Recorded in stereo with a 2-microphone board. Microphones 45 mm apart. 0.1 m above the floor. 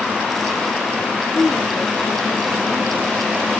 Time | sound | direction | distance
1.3 | a woman speaking | 50° left (ahead or behind) | 3 m